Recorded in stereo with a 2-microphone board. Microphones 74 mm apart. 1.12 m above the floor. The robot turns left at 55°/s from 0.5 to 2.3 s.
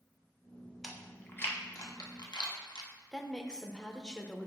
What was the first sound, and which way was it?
Chewing, centre (ahead or behind).